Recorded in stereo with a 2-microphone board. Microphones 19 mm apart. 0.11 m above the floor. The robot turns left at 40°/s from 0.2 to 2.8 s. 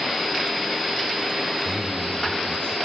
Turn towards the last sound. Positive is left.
turn(degrees=95)